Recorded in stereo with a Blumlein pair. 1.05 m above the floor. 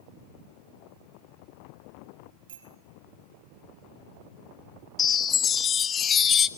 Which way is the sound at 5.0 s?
25° left.